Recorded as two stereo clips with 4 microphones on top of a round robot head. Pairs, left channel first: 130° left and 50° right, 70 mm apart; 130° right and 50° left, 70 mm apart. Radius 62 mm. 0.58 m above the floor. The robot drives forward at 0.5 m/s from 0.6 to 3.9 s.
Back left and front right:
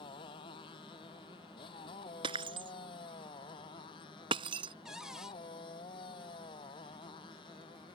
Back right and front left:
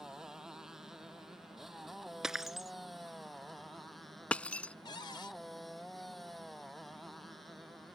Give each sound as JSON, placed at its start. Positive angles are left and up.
{"t": 0.0, "sound": "a motorcycle", "azimuth_deg": 130}
{"t": 2.2, "sound": "breaking glass", "azimuth_deg": -35}
{"t": 4.8, "sound": "a cupboard door", "azimuth_deg": -130}